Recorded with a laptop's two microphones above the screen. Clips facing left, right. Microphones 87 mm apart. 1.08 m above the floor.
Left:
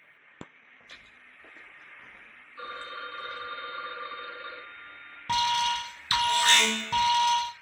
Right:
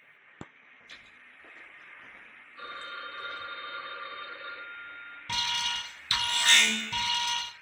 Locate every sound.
0.8 s footsteps: 40° left (ahead or behind), 1.3 m; by 3.5 s 40° right (ahead or behind), 1.4 m
2.6 s a phone ringing: 30° left (ahead or behind), 0.8 m
5.3 s an alarm: 45° left (ahead or behind), 0.6 m